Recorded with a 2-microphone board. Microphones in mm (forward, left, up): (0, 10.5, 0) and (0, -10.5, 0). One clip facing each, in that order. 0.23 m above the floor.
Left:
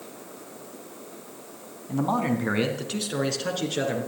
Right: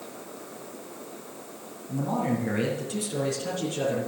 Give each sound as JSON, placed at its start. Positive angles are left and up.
{"t": 1.9, "sound": "a man speaking", "side_deg": 45, "distance_m": 2.0}